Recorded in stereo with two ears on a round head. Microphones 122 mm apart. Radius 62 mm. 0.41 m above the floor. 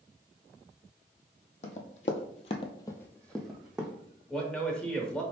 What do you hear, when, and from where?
1.6 s running footsteps: 55° left (ahead or behind), 0.8 m; by 3.9 s 5° right (ahead or behind), 1.0 m
4.3 s a man speaking: 5° left (ahead or behind), 0.9 m